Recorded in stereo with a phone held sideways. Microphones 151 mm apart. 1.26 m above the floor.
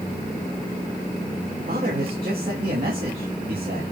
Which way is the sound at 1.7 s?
75° right (ahead or behind).